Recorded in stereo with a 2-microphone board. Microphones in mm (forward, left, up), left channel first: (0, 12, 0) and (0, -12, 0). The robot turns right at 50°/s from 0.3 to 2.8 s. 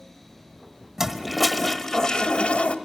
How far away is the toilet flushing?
About 1.0 m.